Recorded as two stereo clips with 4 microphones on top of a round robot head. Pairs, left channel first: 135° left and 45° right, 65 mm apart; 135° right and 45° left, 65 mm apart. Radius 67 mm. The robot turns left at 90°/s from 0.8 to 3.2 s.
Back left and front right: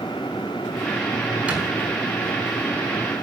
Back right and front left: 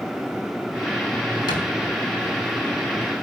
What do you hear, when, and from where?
1.5 s a thud: 115° right, 6 m; by 1.6 s 135° right, 6 m